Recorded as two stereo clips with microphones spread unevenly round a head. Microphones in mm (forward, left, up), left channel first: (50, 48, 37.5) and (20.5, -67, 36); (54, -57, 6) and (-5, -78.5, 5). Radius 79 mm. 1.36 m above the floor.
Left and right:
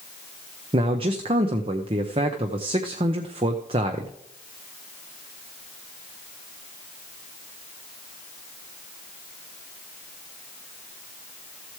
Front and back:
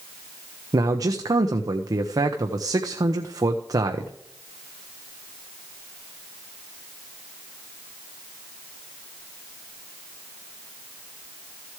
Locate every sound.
0.7 s a man speaking: 150° right, 0.9 m